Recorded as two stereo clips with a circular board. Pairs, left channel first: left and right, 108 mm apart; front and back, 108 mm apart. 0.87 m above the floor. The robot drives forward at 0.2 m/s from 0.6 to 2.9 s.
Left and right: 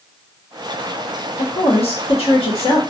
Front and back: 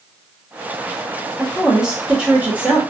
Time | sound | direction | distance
1.4 | a woman speaking | 95° left | 1.1 m